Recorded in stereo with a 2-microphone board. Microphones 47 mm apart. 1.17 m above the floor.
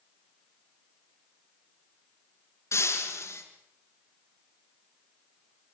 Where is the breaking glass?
85° left, 6.5 m.